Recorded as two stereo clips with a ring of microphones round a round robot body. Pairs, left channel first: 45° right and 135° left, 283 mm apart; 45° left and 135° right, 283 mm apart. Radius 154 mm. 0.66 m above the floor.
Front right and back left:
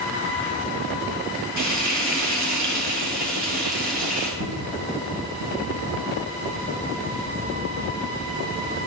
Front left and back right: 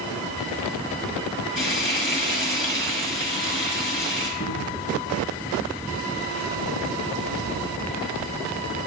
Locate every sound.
1.6 s frying: 90° left, 6.5 m
4.4 s a cupboard door: 95° left, 2 m